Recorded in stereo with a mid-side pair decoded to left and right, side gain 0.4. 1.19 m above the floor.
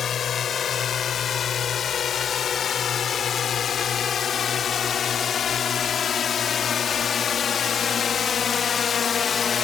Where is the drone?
55° left.